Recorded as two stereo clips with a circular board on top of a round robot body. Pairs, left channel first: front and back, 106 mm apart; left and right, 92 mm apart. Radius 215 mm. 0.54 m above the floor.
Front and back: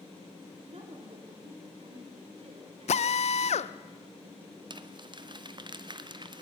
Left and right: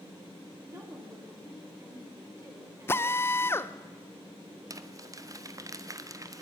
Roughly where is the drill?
Ahead.